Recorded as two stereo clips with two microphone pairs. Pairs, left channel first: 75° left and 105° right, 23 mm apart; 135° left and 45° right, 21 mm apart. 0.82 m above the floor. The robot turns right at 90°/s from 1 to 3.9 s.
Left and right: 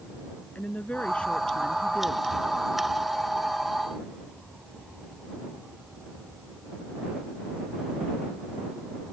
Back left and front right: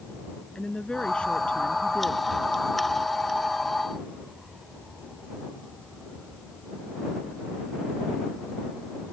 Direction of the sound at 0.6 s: 90° left.